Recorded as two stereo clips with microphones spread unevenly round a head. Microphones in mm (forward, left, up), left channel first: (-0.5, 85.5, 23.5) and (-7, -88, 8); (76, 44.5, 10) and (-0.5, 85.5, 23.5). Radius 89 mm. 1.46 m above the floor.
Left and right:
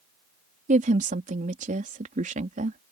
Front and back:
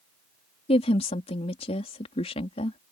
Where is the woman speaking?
40° right.